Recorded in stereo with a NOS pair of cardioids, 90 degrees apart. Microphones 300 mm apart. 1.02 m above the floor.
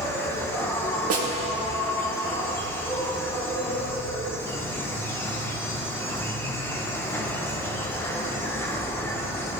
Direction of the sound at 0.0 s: 10° left.